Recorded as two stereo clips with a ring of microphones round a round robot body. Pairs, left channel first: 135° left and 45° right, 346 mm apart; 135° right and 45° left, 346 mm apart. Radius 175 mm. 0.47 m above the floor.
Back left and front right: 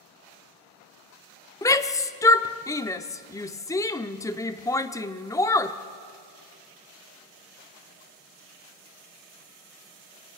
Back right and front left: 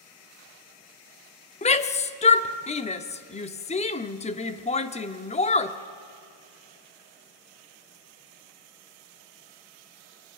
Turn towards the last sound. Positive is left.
turn(degrees=-160)